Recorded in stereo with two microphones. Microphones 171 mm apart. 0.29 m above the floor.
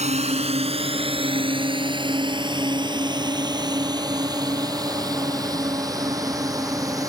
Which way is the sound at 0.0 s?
40° right (ahead or behind).